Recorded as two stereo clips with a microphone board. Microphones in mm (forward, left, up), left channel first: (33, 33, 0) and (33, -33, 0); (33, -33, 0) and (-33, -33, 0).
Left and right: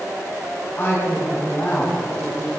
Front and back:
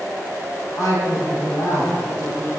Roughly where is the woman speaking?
Ahead left.